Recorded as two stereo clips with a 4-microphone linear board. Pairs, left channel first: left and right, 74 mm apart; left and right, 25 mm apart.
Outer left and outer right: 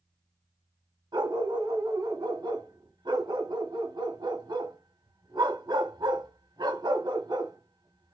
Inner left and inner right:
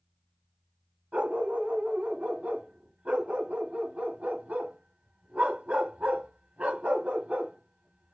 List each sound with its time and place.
1.1 s a dog barking: 90° right, 0.9 m